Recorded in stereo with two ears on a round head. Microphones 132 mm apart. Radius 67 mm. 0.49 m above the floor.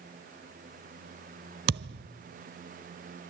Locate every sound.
1.7 s a thud: 85° right, 0.8 m